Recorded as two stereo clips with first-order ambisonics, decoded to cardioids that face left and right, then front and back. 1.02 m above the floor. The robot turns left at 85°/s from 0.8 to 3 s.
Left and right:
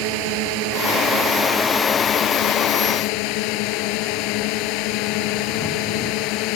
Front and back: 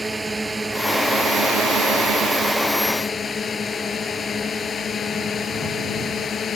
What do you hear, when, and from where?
0.0 s a drone: 95° right; by 6.6 s 65° left